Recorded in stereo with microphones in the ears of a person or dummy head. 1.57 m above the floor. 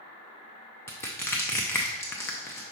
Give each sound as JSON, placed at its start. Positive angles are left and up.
{"t": 0.9, "sound": "crushing", "side_deg": 15, "distance_m": 0.5}